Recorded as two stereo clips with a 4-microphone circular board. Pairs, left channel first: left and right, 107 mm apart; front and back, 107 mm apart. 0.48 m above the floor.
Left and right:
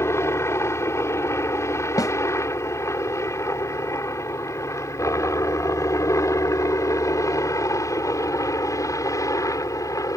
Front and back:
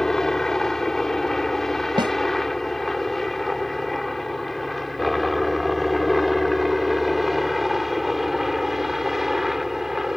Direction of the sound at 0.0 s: 80° left.